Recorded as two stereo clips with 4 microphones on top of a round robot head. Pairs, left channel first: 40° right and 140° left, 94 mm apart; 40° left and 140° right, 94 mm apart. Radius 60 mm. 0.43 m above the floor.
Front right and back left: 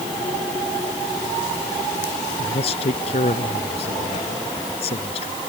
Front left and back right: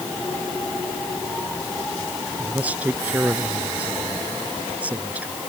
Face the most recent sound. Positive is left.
turn(degrees=-65)